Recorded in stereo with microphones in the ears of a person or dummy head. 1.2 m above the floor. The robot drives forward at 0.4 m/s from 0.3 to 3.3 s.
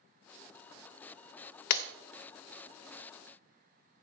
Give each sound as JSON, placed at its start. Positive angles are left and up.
{"t": 1.7, "sound": "breaking glass", "side_deg": 60, "distance_m": 0.6}